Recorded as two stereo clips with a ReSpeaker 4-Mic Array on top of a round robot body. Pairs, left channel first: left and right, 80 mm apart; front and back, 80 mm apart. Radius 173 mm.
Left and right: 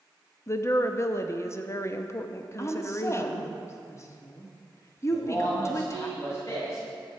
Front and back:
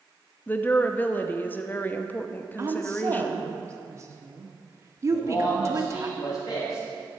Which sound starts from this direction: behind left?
A woman speaking, at 2.6 s.